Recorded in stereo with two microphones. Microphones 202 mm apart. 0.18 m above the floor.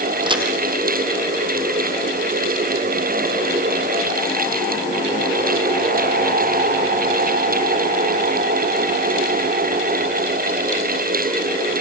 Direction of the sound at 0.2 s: 25° right (ahead or behind).